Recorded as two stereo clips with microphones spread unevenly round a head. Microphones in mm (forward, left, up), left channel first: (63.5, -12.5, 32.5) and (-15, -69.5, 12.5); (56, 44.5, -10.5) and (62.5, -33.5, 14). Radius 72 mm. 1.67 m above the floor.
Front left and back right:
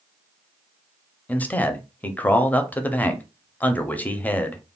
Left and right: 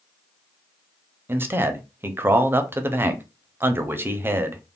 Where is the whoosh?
No whoosh in this recording.